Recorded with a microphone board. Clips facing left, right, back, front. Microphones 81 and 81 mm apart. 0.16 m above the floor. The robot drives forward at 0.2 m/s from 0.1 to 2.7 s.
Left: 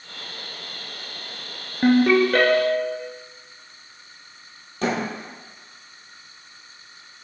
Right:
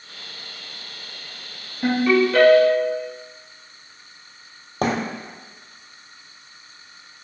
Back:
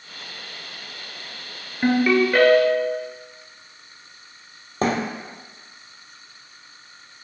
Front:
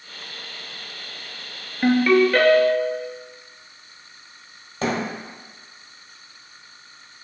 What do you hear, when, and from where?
1.8 s a ringtone: 95° left, 1.1 m; by 3.0 s 105° left, 1.1 m
4.8 s a thud: 130° right, 1.3 m